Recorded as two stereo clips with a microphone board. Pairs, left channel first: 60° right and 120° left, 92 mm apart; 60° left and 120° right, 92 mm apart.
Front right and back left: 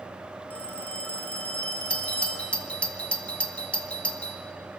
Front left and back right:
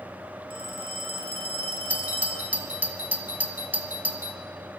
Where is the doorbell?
110° right, 1.3 m.